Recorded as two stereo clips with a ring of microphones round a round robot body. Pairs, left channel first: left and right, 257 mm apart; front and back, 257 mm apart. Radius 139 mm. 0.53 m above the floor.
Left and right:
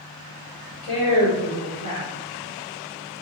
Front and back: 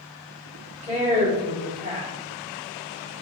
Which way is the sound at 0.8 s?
125° left.